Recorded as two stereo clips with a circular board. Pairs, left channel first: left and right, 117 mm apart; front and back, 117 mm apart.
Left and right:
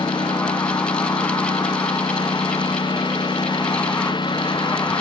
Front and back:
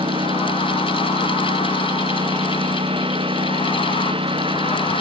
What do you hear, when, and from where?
0.0 s a lawn mower: 140° left